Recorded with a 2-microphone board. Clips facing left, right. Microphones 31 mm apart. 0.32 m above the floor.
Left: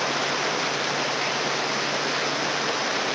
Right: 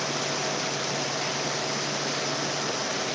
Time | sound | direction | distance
0.0 | running water | 30° left (ahead or behind) | ?